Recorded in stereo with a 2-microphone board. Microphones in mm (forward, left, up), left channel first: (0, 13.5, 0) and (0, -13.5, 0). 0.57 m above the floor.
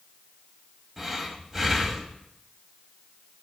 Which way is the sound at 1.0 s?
10° right (ahead or behind).